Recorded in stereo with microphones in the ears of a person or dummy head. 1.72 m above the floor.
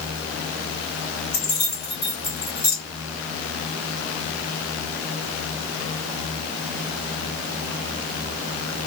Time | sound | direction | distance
1.3 | keys jangling | 20° left (ahead or behind) | 1.4 m